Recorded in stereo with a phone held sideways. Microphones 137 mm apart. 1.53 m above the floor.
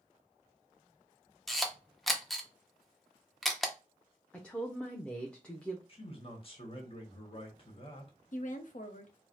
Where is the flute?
No flute in this recording.